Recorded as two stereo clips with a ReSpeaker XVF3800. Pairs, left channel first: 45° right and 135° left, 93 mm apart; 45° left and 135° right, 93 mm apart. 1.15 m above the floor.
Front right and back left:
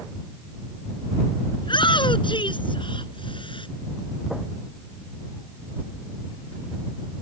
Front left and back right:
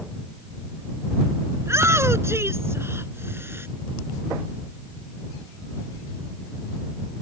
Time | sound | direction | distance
1.6 | a shout | 75° right | ?